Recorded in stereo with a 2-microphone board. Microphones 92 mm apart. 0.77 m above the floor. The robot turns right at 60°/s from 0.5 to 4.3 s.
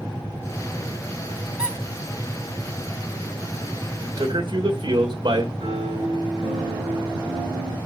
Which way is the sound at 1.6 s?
15° right (ahead or behind).